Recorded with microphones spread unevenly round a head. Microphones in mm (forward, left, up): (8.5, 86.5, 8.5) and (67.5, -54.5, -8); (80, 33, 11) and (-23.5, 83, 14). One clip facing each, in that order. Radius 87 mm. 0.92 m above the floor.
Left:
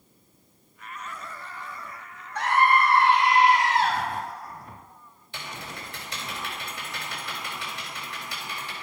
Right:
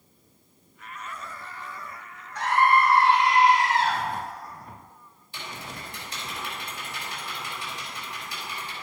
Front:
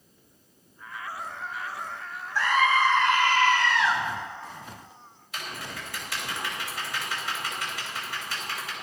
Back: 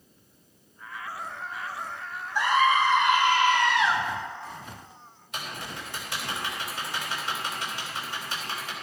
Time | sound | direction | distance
2.4 | a scream | 80° left | 1.9 m
5.3 | typing on a keyboard | 85° left | 4 m